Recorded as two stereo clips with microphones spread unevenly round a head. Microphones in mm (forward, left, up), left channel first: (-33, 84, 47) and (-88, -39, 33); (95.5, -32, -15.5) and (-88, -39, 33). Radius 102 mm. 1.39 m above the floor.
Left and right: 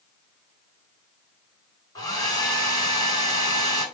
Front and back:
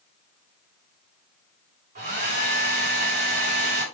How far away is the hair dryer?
About 5 m.